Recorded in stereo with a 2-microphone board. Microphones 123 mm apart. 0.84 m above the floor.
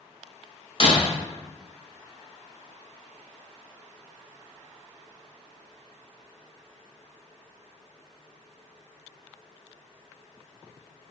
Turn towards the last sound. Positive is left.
turn(degrees=45)  # may be behind; listen again after turning